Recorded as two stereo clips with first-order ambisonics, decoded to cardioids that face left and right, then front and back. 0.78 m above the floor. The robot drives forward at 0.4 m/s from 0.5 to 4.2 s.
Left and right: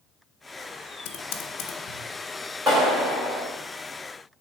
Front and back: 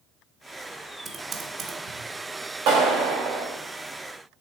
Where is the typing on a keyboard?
105° left, 0.7 m; by 2.0 s 130° left, 0.9 m.